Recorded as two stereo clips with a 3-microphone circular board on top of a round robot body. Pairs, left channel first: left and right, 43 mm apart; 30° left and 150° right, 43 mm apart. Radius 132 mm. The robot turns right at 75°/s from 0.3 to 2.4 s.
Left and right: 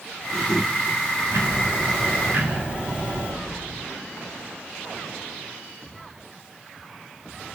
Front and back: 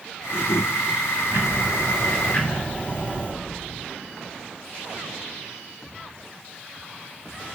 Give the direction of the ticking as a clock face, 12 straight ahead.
4 o'clock.